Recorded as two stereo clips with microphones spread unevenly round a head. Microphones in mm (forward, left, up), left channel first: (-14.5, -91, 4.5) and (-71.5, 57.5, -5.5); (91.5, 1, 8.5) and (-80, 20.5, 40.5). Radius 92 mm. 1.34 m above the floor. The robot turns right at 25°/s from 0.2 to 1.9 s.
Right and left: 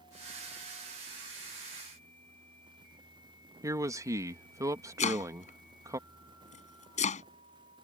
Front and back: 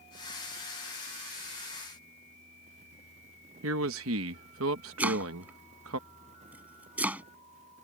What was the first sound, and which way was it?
A man speaking, straight behind.